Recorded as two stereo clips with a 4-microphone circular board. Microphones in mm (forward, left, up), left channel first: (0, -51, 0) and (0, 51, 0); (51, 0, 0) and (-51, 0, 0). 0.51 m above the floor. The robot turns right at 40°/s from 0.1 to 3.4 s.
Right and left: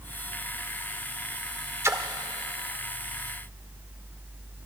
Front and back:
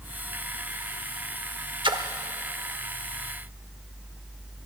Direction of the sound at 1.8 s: 150° left.